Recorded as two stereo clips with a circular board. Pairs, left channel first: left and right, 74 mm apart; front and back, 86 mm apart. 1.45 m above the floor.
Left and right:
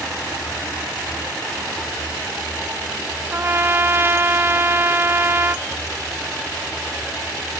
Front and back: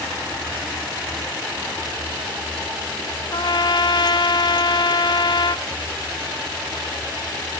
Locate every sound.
3.3 s a trumpet: 30° right, 0.6 m